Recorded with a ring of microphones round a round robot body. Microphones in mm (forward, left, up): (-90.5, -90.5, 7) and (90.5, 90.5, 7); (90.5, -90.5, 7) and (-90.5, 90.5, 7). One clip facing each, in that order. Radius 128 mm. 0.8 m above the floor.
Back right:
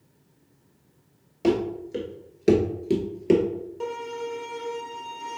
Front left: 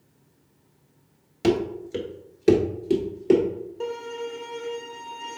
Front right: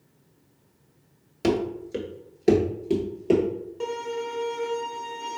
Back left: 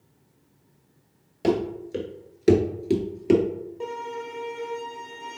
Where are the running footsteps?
10° left, 0.8 m; by 3.4 s 160° left, 1.0 m.